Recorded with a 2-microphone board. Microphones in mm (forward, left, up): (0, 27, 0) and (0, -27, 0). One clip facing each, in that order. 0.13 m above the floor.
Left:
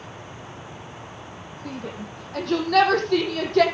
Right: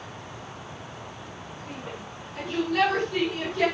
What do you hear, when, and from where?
1.6 s a shout: 75° left (ahead or behind), 5 m; by 3.6 s 70° left (ahead or behind), 4.5 m